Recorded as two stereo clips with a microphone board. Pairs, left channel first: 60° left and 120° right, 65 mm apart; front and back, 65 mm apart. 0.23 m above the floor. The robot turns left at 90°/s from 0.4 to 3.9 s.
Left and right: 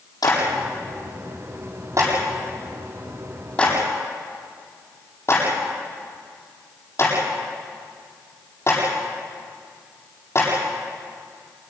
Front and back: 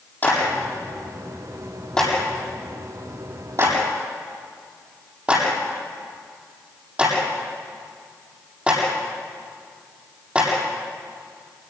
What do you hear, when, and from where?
0.2 s a clap: 65° left, 7.5 m; by 11.7 s 110° left, 7.5 m